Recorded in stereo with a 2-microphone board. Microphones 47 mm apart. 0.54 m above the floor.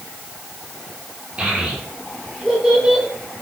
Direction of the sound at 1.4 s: 25° right (ahead or behind).